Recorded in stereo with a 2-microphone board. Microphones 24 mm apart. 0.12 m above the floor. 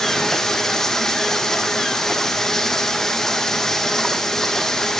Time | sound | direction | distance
0.0 | running water | 15° left (ahead or behind) | 4 m